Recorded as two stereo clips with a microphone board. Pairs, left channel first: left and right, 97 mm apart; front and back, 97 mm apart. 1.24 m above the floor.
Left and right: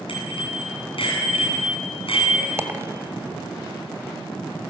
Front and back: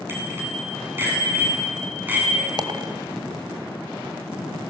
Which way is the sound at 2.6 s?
145° right.